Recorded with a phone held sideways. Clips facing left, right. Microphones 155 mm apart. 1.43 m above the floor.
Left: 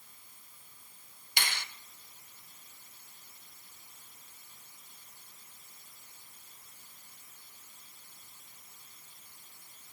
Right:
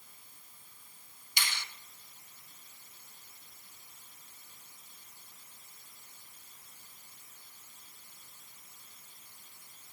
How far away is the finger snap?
About 1.1 m.